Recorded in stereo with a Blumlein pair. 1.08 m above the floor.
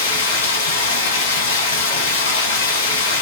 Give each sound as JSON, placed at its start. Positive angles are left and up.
{"t": 0.0, "sound": "running water", "azimuth_deg": 65, "distance_m": 4.0}